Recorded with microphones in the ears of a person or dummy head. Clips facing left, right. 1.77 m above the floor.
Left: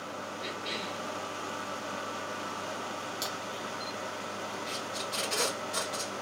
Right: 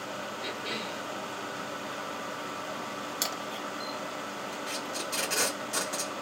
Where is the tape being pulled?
35° right (ahead or behind), 2.5 m.